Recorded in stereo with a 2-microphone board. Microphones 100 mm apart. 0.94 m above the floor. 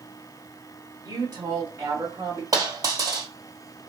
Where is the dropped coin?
35° right (ahead or behind), 2 m.